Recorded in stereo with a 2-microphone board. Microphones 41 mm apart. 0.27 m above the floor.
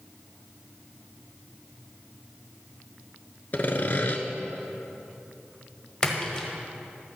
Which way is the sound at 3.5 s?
45° left (ahead or behind).